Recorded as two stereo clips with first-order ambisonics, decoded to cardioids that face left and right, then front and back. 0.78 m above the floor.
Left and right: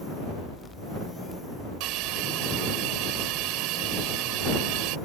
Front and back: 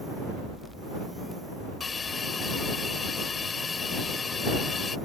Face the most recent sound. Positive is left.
turn(degrees=-70)